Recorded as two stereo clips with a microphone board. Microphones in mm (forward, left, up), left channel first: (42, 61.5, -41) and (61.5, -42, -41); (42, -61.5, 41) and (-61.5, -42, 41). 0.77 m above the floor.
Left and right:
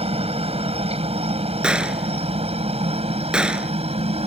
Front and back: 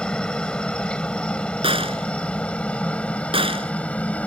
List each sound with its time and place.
0.0 s a helicopter: 95° right; by 4.3 s 90° right
1.6 s a gunshot: 160° right